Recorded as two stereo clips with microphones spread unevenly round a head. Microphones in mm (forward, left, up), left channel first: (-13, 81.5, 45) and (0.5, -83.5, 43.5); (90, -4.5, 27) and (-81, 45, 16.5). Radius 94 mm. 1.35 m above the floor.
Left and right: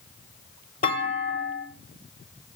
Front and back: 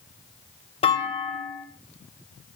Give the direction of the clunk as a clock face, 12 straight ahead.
11 o'clock.